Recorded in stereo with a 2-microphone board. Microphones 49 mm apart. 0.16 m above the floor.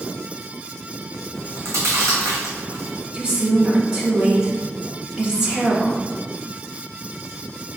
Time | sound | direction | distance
1.3 | chewing | 80° right | 1.8 m
3.1 | a woman speaking | 20° right (ahead or behind) | 1.7 m